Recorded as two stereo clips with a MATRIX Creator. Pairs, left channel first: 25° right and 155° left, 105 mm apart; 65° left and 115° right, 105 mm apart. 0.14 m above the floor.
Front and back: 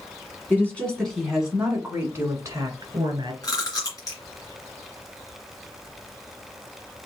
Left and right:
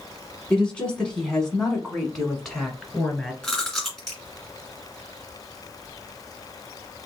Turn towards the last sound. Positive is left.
turn(degrees=-15)